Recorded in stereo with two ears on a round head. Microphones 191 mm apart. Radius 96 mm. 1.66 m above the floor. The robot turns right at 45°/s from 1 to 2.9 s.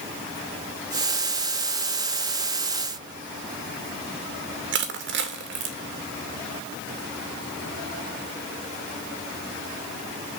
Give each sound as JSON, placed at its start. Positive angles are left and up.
{"t": 4.7, "sound": "crushing", "side_deg": -50, "distance_m": 2.5}